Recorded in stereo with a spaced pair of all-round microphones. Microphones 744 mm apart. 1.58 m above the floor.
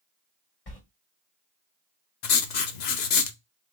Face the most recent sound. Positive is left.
turn(degrees=70)  # may be behind; listen again after turning